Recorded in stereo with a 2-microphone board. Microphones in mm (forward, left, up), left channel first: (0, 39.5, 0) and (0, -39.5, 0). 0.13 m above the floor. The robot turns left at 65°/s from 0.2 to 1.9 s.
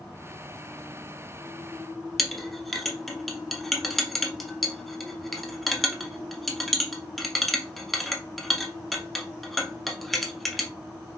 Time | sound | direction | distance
2.2 | a clink | centre (ahead or behind) | 0.7 m